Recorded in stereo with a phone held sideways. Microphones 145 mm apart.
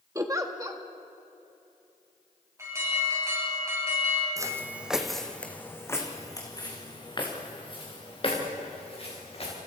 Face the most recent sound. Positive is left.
turn(degrees=45)  # may be behind; listen again after turning